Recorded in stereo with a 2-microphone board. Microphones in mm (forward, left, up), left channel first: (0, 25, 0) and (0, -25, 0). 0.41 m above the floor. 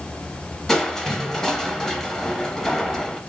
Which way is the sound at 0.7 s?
10° left (ahead or behind).